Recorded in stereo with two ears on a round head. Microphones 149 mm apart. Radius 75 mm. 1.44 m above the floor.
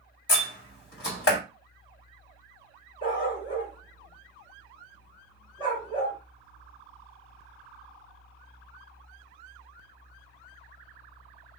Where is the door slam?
75° left (ahead or behind), 2 m.